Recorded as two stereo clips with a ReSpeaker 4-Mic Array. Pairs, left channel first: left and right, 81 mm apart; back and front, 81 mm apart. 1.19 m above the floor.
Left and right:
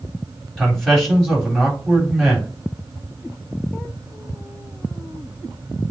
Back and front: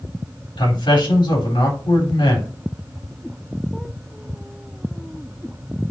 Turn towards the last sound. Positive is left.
turn(degrees=180)